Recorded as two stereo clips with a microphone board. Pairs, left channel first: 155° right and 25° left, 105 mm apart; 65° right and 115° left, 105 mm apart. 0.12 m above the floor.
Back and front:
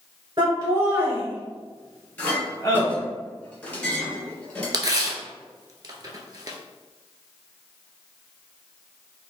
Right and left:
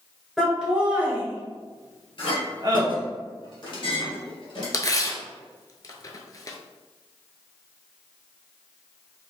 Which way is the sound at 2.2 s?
85° right.